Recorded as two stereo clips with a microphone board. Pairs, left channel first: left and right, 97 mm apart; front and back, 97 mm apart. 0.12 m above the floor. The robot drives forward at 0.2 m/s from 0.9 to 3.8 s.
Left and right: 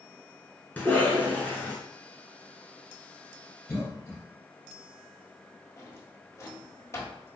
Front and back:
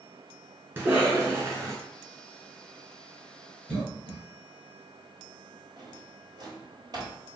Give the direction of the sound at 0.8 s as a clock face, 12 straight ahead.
7 o'clock.